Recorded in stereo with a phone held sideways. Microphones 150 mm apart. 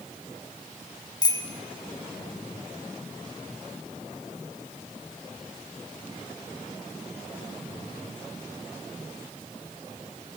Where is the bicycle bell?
25° left (ahead or behind), 2.5 m.